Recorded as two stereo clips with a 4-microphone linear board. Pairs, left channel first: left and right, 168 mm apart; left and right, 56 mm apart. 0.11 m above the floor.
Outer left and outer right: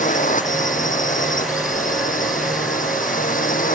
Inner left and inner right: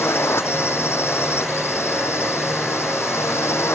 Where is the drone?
50° left (ahead or behind).